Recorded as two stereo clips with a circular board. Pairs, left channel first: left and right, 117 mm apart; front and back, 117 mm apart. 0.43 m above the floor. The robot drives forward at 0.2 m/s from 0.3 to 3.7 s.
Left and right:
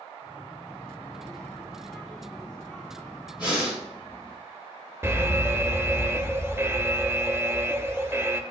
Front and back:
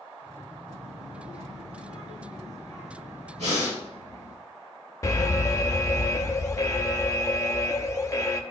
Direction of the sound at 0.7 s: 165° left.